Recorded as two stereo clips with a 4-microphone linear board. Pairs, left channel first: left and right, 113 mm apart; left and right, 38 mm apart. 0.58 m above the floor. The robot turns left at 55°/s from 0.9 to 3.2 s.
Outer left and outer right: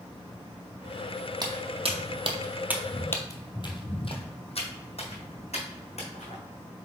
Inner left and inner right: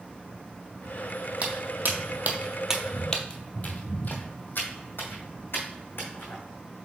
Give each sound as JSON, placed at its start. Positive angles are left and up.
{"t": 1.4, "sound": "footsteps", "side_deg": -40, "distance_m": 1.2}